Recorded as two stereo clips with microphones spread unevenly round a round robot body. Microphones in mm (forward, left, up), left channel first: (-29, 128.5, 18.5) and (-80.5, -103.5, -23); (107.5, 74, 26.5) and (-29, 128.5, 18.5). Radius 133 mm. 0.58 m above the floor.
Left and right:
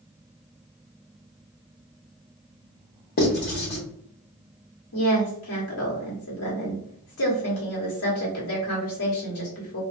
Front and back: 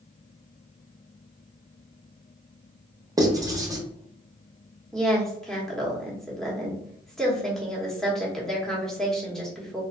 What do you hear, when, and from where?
3.2 s writing: 110° left, 0.9 m
4.9 s a woman speaking: 65° left, 1.3 m